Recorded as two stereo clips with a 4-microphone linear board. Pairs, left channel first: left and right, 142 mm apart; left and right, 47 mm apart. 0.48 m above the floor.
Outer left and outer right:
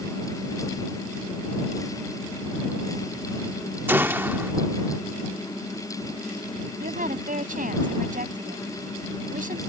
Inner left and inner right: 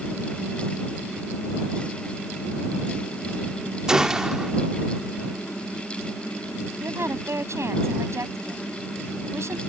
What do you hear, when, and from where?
3.9 s a gunshot: 15° right (ahead or behind)
6.8 s a woman speaking: 75° right (ahead or behind)